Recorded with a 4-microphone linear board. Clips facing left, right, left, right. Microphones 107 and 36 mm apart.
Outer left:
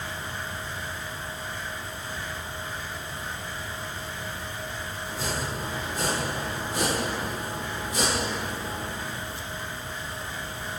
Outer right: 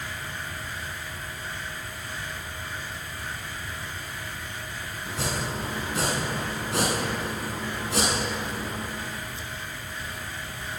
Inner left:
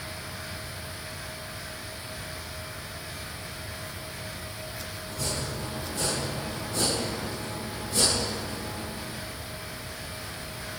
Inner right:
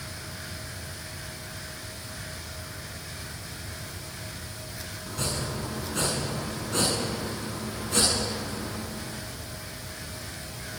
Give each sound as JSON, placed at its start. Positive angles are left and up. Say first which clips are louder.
{"t": 5.1, "sound": "chopping", "louder": "outer right 2 dB, inner right 2 dB", "side_deg": -80, "distance_m": 8.0}